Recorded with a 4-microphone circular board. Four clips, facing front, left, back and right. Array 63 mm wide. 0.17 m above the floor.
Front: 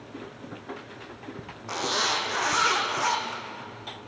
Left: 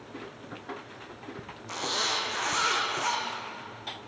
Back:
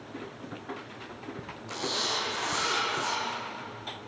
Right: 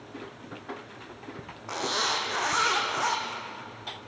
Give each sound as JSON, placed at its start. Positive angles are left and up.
{"t": 1.7, "sound": "a zipper", "azimuth_deg": -60, "distance_m": 5.0}